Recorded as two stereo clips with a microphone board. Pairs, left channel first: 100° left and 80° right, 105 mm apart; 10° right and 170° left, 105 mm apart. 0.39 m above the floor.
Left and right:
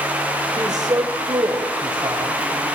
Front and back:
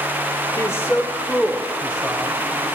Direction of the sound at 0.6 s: 55° right.